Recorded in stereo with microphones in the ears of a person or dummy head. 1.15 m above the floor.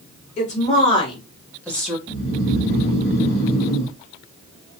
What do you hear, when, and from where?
0.4 s a woman speaking: 35° left (ahead or behind), 1.5 m; by 2.0 s 5° right (ahead or behind), 0.9 m
2.1 s snoring: 30° left (ahead or behind), 1.6 m